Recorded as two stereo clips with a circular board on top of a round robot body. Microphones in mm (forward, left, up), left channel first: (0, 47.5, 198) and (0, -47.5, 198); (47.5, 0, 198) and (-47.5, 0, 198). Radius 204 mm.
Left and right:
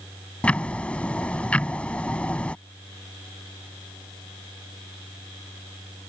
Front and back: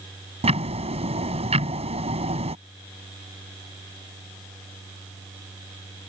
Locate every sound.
0.4 s ticking: 170° left